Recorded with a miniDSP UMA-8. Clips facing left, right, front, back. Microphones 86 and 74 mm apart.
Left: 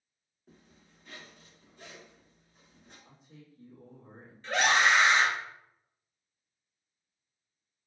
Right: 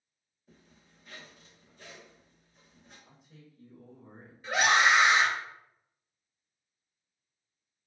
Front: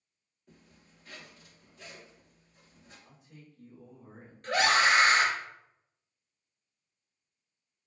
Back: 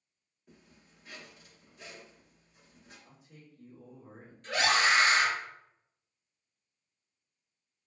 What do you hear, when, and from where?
0.5 s a zipper: 105° left, 1.8 m
3.0 s a man speaking: 95° left, 1.8 m
4.4 s a scream: 10° right, 0.8 m